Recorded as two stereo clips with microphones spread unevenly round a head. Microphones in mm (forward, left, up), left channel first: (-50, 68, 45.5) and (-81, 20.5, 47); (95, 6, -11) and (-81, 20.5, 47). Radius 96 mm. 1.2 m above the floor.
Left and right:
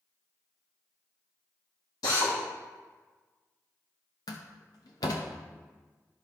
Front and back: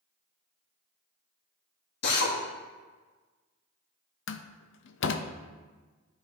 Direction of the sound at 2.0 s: 20° left.